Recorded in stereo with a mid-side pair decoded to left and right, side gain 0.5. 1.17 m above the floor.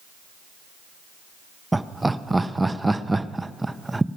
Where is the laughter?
10° right, 0.8 m.